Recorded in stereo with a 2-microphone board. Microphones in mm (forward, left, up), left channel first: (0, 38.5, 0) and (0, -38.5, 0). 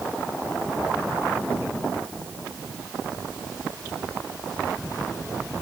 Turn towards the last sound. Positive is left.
No sound to turn to.